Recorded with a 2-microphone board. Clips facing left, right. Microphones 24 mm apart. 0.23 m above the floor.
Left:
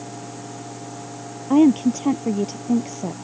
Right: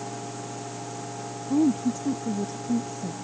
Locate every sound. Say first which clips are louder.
1.5 s a woman speaking: left 8 dB; 75° left (ahead or behind); by 3.1 s 65° left (ahead or behind)